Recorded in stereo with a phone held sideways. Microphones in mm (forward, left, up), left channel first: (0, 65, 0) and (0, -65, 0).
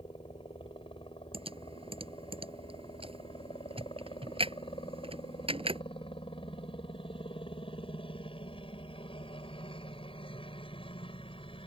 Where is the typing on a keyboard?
45° right (ahead or behind).